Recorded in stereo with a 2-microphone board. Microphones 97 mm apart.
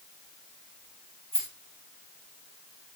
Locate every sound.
1.3 s a rattle: 70° right (ahead or behind), 6.5 m